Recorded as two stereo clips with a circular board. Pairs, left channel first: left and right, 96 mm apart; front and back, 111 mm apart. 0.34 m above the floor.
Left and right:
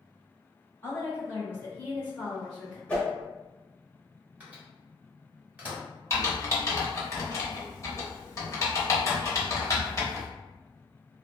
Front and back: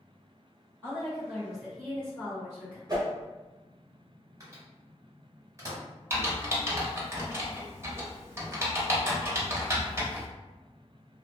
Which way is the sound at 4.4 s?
155° right.